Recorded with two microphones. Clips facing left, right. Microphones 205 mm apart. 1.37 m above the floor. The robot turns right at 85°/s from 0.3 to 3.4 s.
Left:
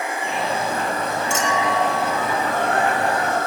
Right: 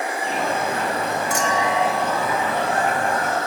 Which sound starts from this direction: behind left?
A clink, at 1.3 s.